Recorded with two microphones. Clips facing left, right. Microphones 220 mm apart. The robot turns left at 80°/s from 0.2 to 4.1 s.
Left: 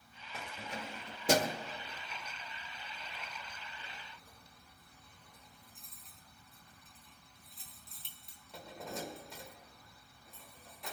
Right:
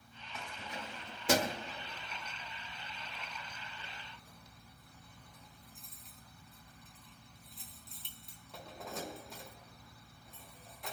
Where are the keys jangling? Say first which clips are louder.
Left 2 dB; 55° left (ahead or behind), 0.9 m; by 10.9 s centre (ahead or behind), 0.9 m.